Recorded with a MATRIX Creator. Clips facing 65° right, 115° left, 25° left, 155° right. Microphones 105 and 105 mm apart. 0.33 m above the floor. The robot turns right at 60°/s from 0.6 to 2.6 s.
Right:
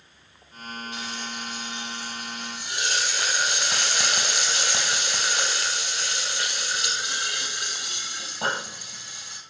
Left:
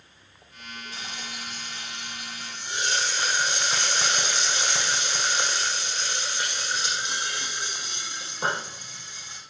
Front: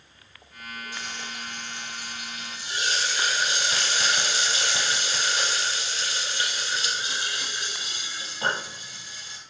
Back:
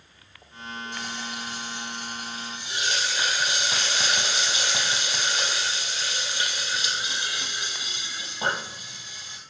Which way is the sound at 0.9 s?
170° left.